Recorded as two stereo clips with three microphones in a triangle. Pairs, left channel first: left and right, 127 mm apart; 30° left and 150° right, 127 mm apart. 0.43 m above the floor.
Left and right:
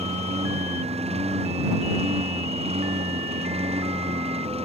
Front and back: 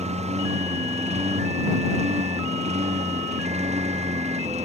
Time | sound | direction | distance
0.0 | a lawn mower | 120° right | ?